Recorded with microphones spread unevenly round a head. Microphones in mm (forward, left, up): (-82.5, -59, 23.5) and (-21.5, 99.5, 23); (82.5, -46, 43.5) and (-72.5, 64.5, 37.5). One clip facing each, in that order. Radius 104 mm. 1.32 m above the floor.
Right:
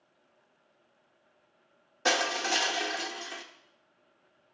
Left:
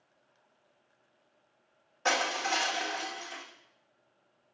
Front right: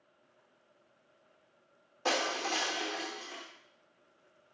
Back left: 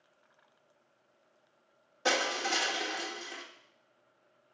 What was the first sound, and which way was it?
Crushing, 140° right.